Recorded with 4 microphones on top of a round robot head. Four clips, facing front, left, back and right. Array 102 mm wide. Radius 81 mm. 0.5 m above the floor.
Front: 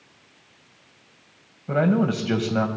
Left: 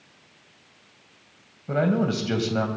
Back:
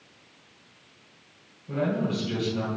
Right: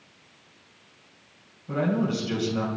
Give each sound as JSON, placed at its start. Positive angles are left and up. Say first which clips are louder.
{"t": 1.7, "sound": "a man speaking", "louder": "left 3 dB, front 6 dB", "azimuth_deg": 25, "distance_m": 3.0}